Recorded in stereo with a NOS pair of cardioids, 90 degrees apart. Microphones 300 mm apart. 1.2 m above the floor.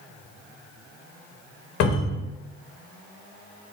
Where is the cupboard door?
65° left, 0.7 m.